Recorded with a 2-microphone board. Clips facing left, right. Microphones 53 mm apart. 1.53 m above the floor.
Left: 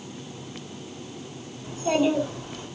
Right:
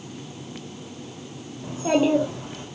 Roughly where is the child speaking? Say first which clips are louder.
Right 2 dB; right.